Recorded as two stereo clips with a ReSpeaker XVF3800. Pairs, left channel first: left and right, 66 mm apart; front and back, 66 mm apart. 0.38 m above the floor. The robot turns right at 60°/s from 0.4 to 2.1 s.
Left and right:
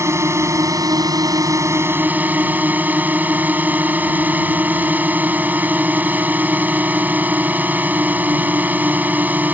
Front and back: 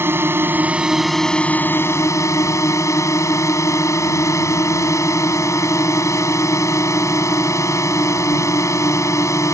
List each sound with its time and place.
0.0 s a drone: 130° right; by 9.5 s 30° right